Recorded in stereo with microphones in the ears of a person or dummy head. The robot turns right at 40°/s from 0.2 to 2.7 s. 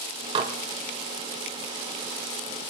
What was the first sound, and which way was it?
Dishes clattering, 25° right (ahead or behind).